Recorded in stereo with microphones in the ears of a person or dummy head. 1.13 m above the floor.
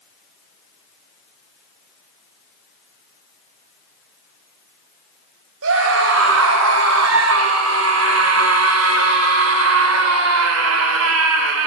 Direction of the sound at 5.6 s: 65° right (ahead or behind).